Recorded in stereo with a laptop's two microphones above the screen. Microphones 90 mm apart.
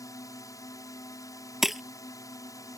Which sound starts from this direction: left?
A drone, at 0.0 s.